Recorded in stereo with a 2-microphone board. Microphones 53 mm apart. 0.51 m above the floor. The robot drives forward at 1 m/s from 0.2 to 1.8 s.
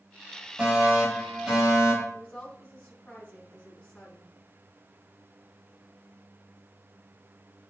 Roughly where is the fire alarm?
Centre.